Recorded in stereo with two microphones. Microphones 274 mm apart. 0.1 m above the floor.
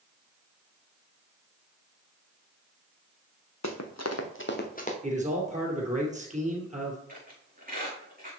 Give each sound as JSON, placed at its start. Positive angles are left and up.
{"t": 3.6, "sound": "running footsteps", "side_deg": 85, "distance_m": 1.4}
{"t": 5.0, "sound": "a man speaking", "side_deg": -25, "distance_m": 2.5}
{"t": 7.1, "sound": "a squeak", "side_deg": -30, "distance_m": 4.5}